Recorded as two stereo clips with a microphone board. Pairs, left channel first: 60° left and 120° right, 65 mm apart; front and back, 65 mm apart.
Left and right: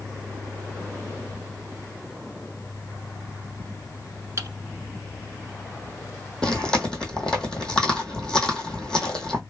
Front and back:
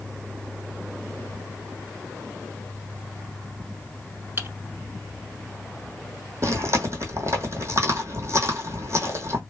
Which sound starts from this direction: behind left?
Chewing, at 6.4 s.